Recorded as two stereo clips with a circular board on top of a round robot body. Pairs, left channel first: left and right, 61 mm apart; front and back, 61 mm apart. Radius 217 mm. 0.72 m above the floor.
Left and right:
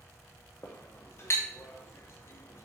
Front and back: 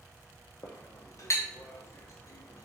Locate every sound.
0.6 s a clink: 40° left, 0.6 m